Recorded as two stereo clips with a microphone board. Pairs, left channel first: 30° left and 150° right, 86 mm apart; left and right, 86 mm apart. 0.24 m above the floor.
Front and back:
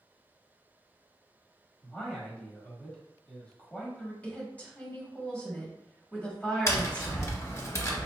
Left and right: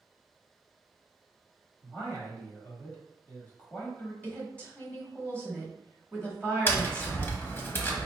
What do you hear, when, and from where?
1.8 s a man speaking: 75° left, 1.1 m
4.2 s a woman speaking: 60° left, 1.2 m
6.7 s tapping: 40° left, 0.6 m